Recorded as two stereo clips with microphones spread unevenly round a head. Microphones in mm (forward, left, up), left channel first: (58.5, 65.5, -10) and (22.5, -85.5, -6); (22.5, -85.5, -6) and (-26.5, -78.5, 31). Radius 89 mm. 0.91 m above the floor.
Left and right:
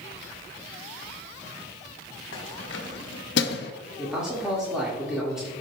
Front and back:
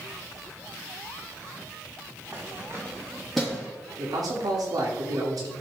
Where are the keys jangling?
100° left, 1.4 m; by 3.7 s 60° left, 0.6 m.